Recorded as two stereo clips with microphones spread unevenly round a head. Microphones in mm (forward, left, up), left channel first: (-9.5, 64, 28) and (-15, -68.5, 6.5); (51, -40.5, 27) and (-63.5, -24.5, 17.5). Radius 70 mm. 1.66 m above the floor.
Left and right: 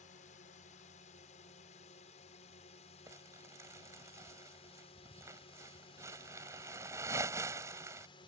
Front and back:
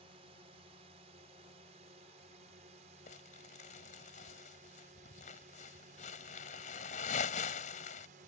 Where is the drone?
120° left; by 8.3 s 140° left.